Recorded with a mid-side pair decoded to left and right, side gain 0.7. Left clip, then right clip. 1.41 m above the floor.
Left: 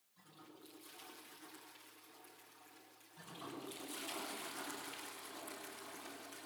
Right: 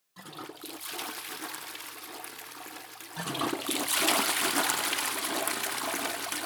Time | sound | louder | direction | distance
0.2 | a toilet flushing | right 17 dB | 65° right | 0.8 m
3.2 | a toilet flushing | right 18 dB | 70° right | 0.8 m